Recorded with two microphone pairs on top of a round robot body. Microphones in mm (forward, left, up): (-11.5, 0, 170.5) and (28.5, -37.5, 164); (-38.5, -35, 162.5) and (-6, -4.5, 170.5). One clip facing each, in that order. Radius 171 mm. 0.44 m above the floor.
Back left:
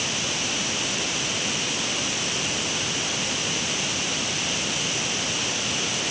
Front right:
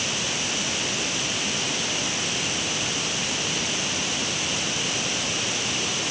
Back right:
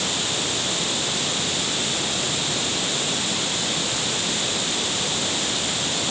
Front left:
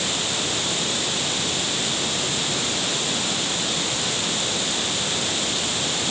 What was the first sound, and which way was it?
Only background noise.